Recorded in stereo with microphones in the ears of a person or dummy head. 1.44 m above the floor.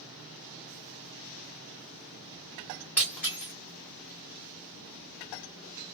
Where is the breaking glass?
10° left (ahead or behind), 1.3 m.